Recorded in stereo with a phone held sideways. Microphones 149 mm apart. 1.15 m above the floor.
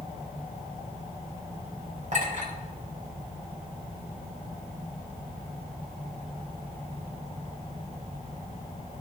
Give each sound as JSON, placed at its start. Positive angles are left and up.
{"t": 2.1, "sound": "a clink", "side_deg": -55, "distance_m": 4.0}